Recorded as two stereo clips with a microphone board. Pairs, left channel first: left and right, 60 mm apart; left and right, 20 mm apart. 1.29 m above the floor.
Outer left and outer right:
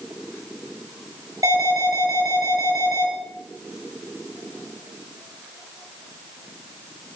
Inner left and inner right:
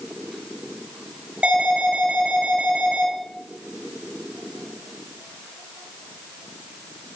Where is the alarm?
80° right, 6 m.